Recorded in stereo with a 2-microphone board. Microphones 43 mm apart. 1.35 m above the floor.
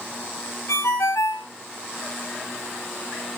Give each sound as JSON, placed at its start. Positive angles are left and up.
{"t": 0.7, "sound": "a ringtone", "side_deg": 85, "distance_m": 5.0}